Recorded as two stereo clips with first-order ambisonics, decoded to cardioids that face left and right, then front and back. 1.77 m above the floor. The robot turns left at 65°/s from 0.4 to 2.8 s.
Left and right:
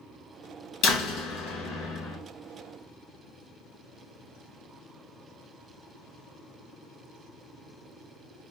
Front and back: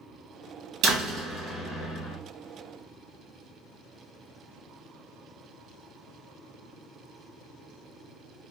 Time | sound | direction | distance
0.8 | a door slam | 140° left | 2.5 m